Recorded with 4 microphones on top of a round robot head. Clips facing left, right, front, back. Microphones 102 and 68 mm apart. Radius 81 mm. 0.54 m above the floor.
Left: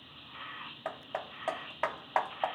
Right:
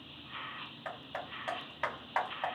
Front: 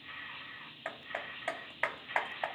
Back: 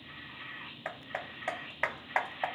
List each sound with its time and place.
0.8 s hammering: 100° left, 0.8 m